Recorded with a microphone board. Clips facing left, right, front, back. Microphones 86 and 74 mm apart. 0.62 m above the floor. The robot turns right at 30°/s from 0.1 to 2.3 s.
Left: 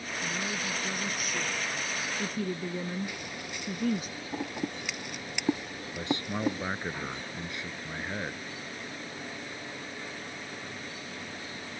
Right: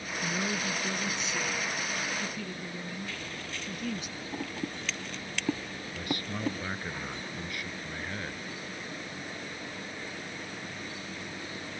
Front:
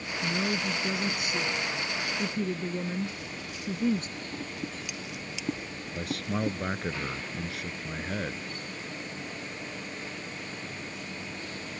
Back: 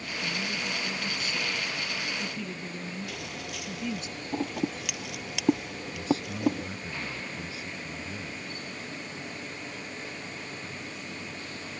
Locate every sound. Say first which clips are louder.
0.2 s a woman speaking: right 3 dB, front 5 dB; 20° right; by 4.1 s 40° left
3.1 s scissors: even, back 1 dB; 165° left
5.9 s a man speaking: left 4 dB, back 3 dB; 25° left